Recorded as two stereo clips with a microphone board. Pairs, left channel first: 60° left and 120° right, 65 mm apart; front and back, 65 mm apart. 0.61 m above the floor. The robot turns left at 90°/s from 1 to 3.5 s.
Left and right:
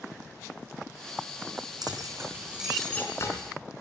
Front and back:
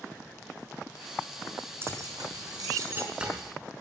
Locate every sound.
1.8 s keys jangling: 130° right, 4 m; by 3.3 s 95° left, 4 m